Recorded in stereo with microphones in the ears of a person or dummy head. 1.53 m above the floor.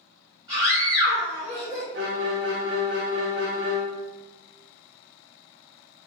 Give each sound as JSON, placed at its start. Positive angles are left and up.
{"t": 0.5, "sound": "a scream", "side_deg": -20, "distance_m": 1.1}
{"t": 1.9, "sound": "a violin", "side_deg": -50, "distance_m": 0.8}